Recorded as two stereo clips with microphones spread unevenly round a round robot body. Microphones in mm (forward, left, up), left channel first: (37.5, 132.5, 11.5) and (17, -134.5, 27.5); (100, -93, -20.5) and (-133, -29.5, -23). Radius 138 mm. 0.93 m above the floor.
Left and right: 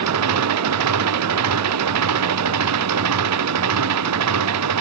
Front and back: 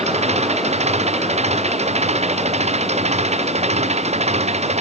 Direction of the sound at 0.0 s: 130° right.